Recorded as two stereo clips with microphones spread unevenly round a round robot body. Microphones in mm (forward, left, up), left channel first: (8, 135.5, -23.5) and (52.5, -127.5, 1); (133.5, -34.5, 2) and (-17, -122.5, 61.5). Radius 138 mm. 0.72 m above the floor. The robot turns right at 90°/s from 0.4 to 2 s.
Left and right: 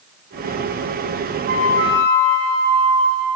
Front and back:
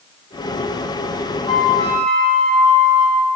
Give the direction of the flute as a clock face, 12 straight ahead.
1 o'clock.